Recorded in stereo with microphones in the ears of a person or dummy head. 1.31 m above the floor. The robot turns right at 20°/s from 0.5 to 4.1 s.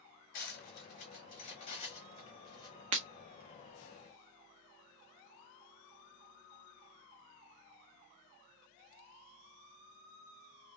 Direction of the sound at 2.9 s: 35° right (ahead or behind).